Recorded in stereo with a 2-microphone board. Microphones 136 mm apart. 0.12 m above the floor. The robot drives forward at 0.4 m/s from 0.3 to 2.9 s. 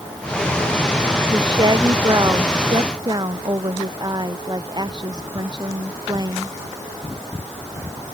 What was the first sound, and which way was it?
A woman speaking, 35° right (ahead or behind).